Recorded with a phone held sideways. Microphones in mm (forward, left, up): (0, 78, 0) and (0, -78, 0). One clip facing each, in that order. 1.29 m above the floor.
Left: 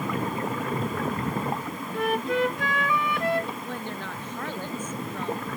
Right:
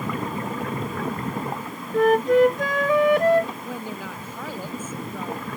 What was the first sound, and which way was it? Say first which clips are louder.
A flute: right 9 dB; 40° right (ahead or behind).